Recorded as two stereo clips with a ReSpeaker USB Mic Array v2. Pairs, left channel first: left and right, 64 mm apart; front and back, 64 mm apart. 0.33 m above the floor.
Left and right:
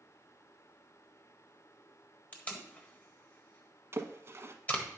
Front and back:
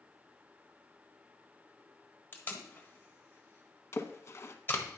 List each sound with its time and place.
2.3 s tape being pulled: 35° left, 1.4 m
3.9 s a splash: 40° right, 0.8 m